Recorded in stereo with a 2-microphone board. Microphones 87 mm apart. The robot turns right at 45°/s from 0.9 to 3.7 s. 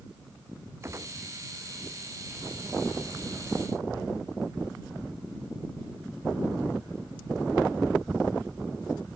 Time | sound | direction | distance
0.8 | a gunshot | 30° right (ahead or behind) | ?